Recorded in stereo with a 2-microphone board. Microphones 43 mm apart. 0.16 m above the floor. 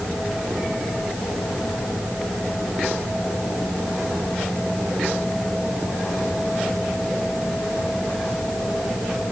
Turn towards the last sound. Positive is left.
No sound to turn to.